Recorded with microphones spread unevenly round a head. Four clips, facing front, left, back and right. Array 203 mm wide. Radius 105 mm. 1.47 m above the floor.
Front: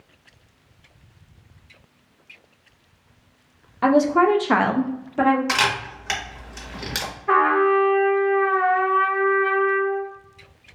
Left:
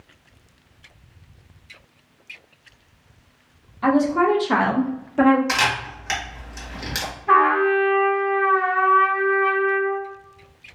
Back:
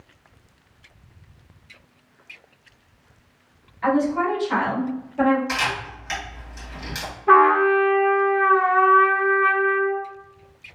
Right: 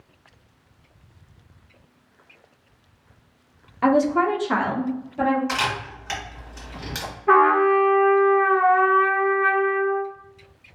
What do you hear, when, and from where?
3.8 s a woman speaking: 35° right, 0.6 m; by 5.4 s 50° left, 0.9 m
5.5 s a camera shutter: 20° left, 1.0 m
7.3 s a trumpet: 160° right, 0.9 m